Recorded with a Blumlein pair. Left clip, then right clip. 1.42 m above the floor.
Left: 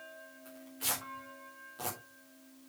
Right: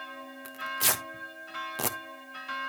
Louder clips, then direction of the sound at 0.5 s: Right 10 dB; 40° right.